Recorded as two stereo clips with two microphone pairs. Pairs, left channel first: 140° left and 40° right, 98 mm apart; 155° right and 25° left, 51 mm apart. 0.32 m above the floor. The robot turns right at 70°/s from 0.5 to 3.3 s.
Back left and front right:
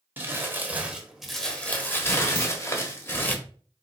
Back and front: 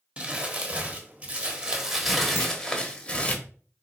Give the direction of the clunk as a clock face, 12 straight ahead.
6 o'clock.